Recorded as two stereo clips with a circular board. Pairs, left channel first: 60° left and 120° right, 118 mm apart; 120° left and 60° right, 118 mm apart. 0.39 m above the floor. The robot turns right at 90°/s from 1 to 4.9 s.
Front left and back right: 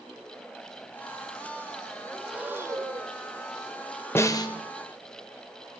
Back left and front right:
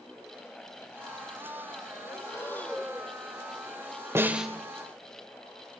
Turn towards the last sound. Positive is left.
turn(degrees=65)